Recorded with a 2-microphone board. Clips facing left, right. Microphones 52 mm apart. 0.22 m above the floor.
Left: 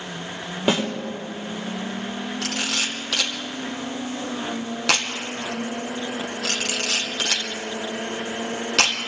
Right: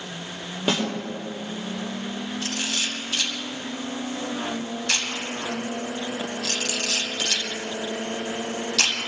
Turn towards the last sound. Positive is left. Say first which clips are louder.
# left 3 dB
turn(degrees=80)